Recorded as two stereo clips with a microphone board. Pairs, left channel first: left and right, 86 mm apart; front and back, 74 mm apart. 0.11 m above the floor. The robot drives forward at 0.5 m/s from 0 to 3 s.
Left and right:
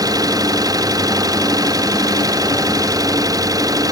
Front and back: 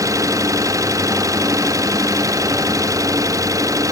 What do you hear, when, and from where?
0.0 s an engine running: 135° right